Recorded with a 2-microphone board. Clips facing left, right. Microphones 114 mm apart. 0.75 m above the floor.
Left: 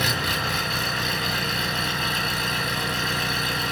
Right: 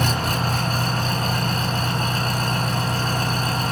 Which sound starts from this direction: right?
An engine running, at 0.0 s.